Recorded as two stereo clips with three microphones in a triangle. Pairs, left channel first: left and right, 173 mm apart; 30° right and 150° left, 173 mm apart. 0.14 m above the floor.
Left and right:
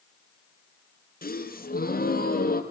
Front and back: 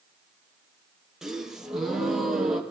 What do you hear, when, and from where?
1.2 s a gasp: 65° left, 4 m